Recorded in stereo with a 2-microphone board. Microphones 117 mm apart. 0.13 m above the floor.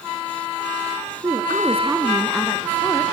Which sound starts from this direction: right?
A woman speaking, at 1.2 s.